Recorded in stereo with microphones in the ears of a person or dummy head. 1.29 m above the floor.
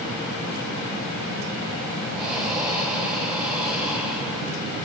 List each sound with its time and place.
2.1 s breathing: centre (ahead or behind), 1.4 m